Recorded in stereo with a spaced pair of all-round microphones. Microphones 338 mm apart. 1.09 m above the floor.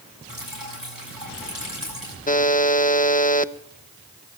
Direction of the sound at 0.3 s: 80° right.